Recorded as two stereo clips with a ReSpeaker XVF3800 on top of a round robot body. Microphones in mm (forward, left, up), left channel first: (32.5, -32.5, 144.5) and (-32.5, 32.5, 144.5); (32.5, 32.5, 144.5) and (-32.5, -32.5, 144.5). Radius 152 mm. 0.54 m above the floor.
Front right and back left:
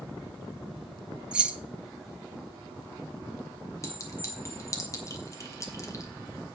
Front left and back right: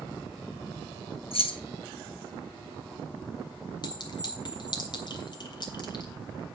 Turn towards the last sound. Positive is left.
turn(degrees=10)